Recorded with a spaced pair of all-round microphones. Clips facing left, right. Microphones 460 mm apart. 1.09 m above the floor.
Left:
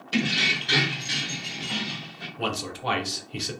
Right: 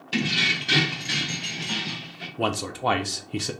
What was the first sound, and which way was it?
Keys jangling, 10° right (ahead or behind).